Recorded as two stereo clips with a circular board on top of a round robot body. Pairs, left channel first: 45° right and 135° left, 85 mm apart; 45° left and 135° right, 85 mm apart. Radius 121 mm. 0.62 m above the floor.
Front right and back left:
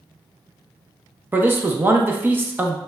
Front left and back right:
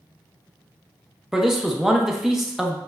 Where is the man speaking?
145° left, 0.5 m.